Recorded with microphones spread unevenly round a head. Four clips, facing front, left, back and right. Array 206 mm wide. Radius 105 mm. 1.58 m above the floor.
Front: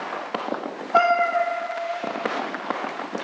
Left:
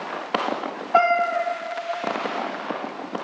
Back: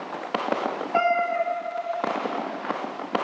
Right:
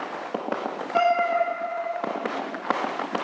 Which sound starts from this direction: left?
A cat meowing, at 0.9 s.